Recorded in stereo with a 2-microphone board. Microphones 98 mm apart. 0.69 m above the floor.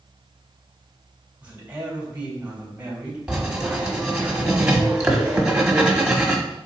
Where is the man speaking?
15° right (ahead or behind), 3.5 m.